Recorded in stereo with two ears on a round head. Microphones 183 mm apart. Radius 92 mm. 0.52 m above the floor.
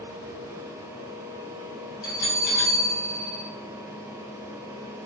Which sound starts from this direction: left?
A bell, at 2.0 s.